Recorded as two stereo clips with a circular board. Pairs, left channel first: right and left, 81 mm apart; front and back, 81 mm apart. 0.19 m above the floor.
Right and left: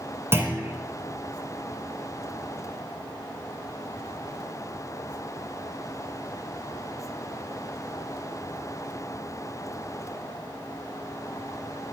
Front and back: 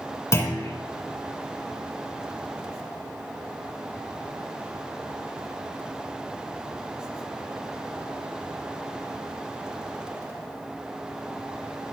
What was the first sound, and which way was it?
A clunk, 40° left.